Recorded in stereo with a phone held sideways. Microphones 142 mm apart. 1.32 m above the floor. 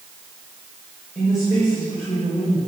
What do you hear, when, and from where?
1.1 s a woman speaking: 20° left (ahead or behind), 6.5 m; by 2.6 s 25° left (ahead or behind), 5.5 m